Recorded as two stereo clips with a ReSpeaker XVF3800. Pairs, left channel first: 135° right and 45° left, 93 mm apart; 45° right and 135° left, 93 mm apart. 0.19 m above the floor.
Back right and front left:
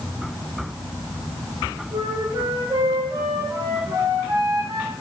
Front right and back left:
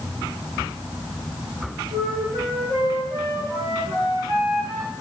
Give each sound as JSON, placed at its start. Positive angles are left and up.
{"t": 1.9, "sound": "a flute", "azimuth_deg": 90, "distance_m": 9.5}